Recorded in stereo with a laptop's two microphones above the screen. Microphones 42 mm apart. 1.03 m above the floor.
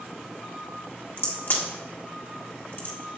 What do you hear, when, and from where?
1.2 s a crack: 60° left (ahead or behind), 1.6 m